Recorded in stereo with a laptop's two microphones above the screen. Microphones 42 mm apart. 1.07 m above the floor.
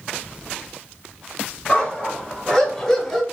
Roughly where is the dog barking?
Centre.